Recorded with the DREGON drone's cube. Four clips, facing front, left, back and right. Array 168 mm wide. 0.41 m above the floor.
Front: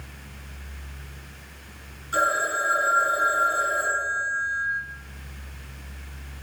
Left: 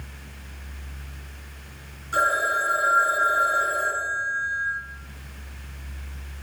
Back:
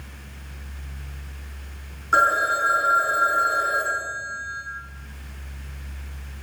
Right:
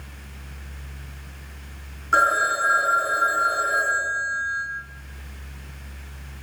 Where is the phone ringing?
135° right, 2.5 m.